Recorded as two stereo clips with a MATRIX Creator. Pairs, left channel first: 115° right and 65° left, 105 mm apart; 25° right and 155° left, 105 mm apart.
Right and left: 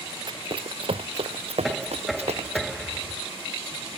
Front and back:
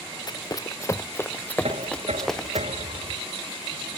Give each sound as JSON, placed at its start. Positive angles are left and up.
{"t": 0.3, "sound": "running footsteps", "azimuth_deg": 25}
{"t": 1.6, "sound": "knocking", "azimuth_deg": 155}